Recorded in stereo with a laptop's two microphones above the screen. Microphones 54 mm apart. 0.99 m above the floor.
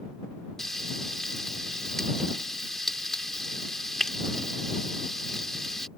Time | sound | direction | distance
0.6 | frying | 10° left (ahead or behind) | ?